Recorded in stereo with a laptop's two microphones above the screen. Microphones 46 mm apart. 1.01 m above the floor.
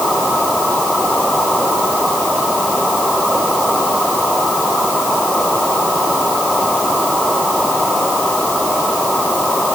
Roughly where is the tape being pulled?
I don't hear tape being pulled.